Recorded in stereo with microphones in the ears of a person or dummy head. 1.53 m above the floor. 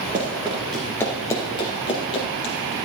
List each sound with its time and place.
0.1 s running footsteps: 15° right (ahead or behind), 1.5 m; by 2.8 s 30° left (ahead or behind), 3.5 m